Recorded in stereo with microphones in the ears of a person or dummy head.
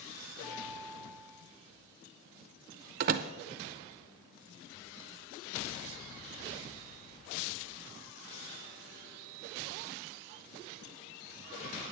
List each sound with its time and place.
0.4 s a guitar: 35° left (ahead or behind), 4 m
3.0 s a door slam: 50° right (ahead or behind), 0.5 m